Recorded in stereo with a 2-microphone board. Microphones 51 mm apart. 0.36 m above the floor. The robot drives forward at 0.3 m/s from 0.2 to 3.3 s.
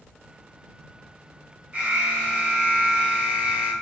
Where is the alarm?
25° right (ahead or behind), 3 m; by 3.7 s 30° right (ahead or behind), 2.5 m.